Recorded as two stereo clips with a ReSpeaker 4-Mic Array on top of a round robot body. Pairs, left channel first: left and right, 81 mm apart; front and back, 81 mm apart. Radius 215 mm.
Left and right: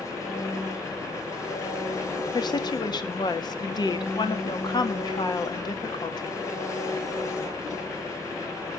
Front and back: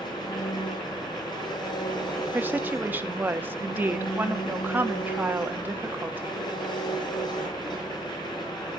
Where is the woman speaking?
115° left, 2 m.